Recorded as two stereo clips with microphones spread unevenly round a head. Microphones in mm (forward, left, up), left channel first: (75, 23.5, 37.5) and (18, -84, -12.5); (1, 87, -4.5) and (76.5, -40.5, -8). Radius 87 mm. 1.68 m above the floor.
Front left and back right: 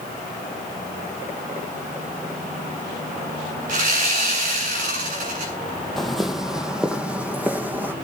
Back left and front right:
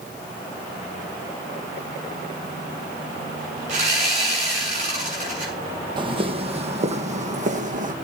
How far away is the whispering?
I don't hear whispering.